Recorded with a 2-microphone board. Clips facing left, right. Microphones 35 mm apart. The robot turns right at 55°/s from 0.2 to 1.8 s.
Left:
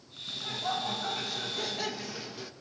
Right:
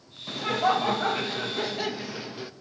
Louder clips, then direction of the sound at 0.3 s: Right 9 dB; 105° right.